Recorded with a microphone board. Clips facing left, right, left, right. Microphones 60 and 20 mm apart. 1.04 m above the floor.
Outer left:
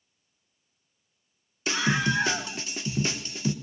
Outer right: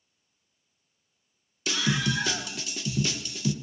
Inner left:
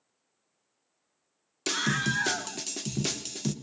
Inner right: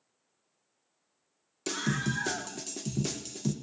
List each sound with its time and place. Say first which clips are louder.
1.7 s a scream: outer left 2 dB, inner left 4 dB; 35° left (ahead or behind), 0.9 m